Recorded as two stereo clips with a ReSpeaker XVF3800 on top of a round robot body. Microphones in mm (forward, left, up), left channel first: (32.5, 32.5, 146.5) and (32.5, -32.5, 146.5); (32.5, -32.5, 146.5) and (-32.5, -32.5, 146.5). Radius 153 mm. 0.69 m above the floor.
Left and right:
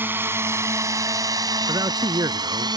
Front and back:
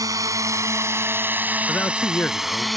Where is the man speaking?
65° right.